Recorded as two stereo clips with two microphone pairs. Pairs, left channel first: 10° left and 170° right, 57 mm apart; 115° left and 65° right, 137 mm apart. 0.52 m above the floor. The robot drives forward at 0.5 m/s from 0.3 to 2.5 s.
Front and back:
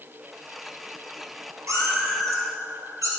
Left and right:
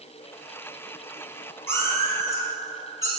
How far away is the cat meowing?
About 1.4 m.